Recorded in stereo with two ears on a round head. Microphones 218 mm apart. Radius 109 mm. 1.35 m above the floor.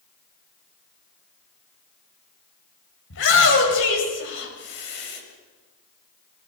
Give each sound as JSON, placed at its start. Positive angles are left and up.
{"t": 3.1, "sound": "a shout", "side_deg": 55, "distance_m": 8.0}